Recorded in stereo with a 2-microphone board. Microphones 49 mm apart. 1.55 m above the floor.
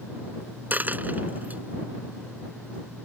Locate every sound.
0.7 s a dropped coin: 35° right (ahead or behind)